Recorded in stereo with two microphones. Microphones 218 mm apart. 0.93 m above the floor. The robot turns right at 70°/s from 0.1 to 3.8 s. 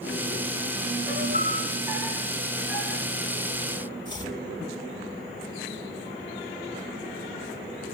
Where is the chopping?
20° left (ahead or behind), 4 m.